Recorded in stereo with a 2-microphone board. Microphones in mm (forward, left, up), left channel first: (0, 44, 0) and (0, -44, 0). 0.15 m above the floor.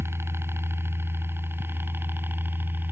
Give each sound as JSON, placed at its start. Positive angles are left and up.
{"t": 0.0, "sound": "a helicopter", "side_deg": -30}